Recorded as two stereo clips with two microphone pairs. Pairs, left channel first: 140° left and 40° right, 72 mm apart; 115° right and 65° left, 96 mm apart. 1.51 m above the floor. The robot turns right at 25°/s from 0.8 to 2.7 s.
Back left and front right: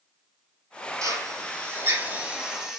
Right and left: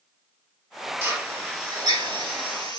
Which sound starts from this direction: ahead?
A drill, at 1.0 s.